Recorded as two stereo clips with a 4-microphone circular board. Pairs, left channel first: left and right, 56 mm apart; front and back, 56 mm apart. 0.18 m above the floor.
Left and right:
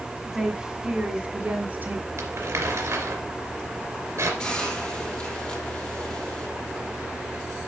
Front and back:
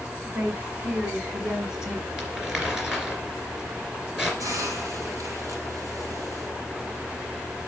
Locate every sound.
0.2 s a woman speaking: 170° right, 1.9 m; by 2.0 s 95° right, 2 m
2.2 s crumpling: 105° right, 2.5 m
4.4 s a hiss: 160° left, 2.5 m